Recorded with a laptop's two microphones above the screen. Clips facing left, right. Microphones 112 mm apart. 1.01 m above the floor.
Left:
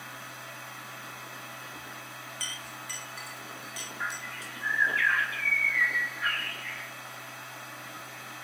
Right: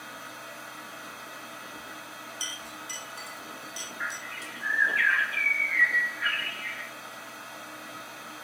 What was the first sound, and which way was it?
A machine running, 35° right (ahead or behind).